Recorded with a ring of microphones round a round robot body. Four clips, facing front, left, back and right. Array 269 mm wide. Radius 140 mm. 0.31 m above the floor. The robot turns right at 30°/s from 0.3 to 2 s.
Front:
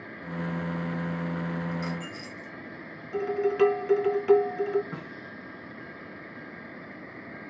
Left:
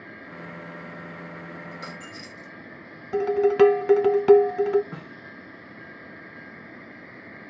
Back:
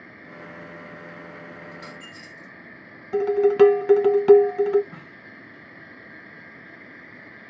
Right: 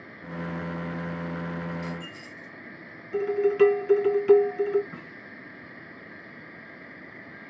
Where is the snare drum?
65° left, 5.5 m.